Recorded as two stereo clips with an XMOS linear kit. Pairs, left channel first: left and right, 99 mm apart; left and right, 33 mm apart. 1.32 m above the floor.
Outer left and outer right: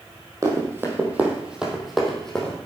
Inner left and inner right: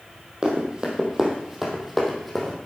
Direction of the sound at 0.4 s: 30° right (ahead or behind).